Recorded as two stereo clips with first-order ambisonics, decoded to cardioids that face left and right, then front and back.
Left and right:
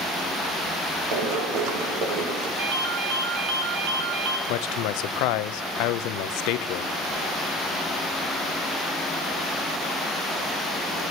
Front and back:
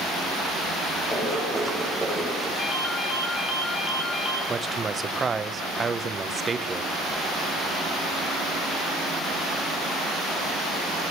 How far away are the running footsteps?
About 4 m.